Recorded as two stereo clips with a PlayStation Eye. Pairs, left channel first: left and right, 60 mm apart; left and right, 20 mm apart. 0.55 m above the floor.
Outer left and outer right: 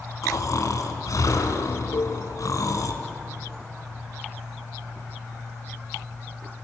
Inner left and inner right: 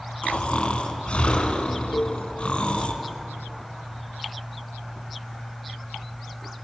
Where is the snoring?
70° left (ahead or behind), 4 m.